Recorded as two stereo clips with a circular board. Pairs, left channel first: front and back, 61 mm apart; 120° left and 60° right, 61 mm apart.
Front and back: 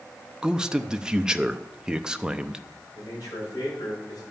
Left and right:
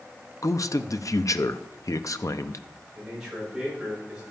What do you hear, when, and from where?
0.4 s a man speaking: 110° left, 0.7 m
3.0 s a man speaking: 20° left, 7 m